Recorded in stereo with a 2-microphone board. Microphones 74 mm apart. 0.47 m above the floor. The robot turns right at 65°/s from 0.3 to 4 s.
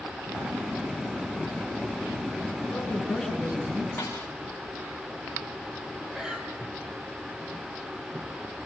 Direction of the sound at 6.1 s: 10° right (ahead or behind).